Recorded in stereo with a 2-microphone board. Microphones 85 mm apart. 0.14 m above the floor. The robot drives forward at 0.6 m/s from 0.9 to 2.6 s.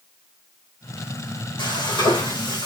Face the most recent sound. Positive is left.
turn(degrees=65)  # may be behind; listen again after turning